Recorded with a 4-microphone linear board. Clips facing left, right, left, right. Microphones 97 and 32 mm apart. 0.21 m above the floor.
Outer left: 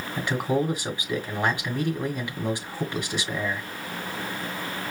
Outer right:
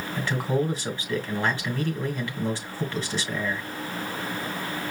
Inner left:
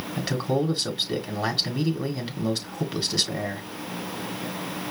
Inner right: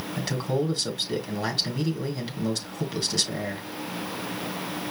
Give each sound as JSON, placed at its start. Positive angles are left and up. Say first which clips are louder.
{"t": 0.2, "sound": "a man speaking", "louder": "outer left 1 dB, inner left 2 dB", "side_deg": 15, "distance_m": 1.9}